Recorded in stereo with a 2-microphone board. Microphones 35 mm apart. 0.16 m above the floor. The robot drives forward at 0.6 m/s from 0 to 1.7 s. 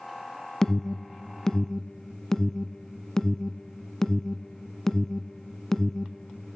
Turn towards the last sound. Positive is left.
turn(degrees=15)  # may be behind; listen again after turning